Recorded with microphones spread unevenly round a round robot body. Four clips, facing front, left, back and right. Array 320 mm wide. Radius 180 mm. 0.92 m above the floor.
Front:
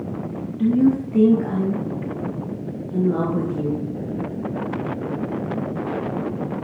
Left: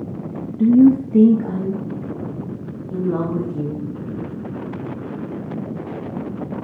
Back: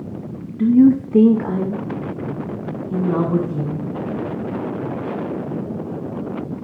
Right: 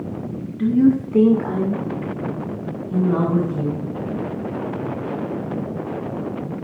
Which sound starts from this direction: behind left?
A woman speaking, at 0.6 s.